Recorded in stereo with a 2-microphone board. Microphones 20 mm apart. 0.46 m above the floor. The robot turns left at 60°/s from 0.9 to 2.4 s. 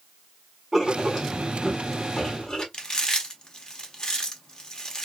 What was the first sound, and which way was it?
Writing, 165° right.